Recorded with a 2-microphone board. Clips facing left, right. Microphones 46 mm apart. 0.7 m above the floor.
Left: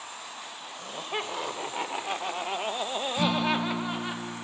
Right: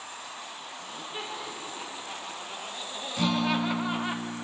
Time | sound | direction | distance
0.8 | laughter | 65° left (ahead or behind) | 3 m
3.2 | a guitar | 5° left (ahead or behind) | 1.5 m